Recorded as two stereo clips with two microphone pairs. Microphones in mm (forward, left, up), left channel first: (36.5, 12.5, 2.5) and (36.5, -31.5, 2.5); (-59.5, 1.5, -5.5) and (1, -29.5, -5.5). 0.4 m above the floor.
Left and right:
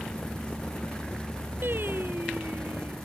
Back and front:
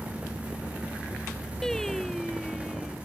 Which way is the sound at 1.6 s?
125° right.